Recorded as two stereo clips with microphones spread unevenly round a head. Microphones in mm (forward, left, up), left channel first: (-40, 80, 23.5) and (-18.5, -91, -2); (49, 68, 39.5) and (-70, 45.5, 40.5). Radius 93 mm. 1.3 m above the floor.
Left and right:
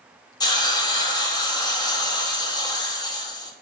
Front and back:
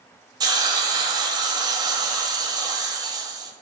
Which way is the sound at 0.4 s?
145° left.